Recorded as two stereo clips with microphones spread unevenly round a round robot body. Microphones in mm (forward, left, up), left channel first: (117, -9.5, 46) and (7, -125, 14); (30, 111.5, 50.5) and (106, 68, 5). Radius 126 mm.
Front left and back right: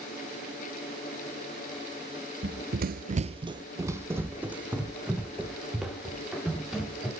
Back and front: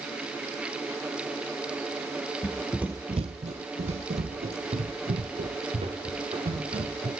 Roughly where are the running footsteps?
Behind.